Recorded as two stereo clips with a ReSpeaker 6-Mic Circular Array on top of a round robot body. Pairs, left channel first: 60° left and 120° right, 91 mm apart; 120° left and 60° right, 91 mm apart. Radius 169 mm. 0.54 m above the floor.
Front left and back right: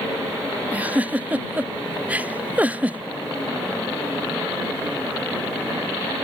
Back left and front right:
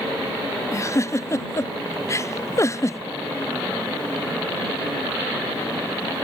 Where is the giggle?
170° left.